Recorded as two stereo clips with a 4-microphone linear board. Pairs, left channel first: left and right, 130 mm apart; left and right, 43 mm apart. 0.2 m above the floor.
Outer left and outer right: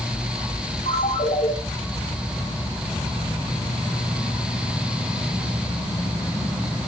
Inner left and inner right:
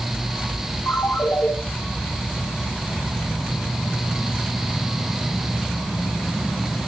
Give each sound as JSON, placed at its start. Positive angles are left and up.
{"t": 0.9, "sound": "a ringtone", "side_deg": 70, "distance_m": 9.0}